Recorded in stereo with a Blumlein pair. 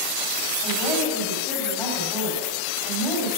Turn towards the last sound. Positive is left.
turn(degrees=20)